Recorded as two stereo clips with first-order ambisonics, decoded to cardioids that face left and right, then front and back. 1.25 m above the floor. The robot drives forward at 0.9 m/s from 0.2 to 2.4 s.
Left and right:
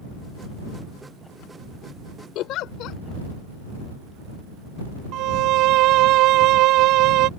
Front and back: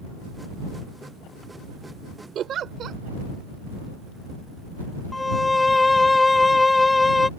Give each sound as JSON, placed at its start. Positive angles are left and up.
{"t": 2.4, "sound": "a giggle", "azimuth_deg": 125}
{"t": 5.1, "sound": "a violin", "azimuth_deg": -80}